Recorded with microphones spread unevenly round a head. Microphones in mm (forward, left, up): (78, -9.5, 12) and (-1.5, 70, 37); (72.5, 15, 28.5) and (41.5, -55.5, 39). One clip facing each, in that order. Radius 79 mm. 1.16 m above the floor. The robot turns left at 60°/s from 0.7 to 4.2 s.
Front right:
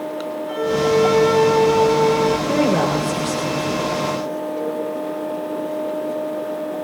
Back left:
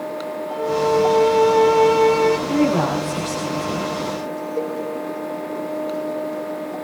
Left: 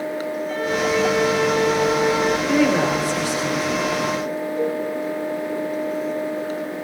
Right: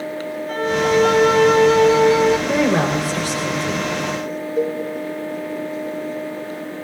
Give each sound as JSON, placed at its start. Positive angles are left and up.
{"t": 0.5, "sound": "a violin", "azimuth_deg": -70, "distance_m": 1.3}
{"t": 2.5, "sound": "a woman speaking", "azimuth_deg": -45, "distance_m": 3.5}
{"t": 4.6, "sound": "a cowbell", "azimuth_deg": -155, "distance_m": 5.5}